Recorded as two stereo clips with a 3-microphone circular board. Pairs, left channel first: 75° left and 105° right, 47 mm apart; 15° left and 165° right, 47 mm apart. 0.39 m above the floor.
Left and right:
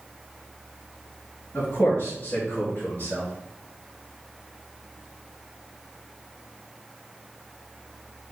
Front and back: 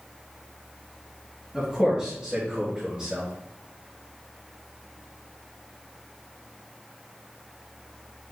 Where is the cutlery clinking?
I don't hear cutlery clinking.